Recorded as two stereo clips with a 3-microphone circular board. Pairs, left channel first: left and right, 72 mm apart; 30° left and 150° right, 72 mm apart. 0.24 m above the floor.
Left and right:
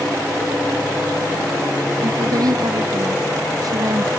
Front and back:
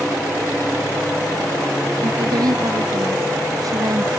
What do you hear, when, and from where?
2.0 s a woman speaking: 125° right; by 4.1 s 115° right